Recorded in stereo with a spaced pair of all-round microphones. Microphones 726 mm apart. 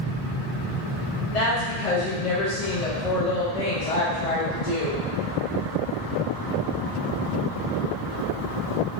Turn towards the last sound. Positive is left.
turn(degrees=55)  # may be behind; listen again after turning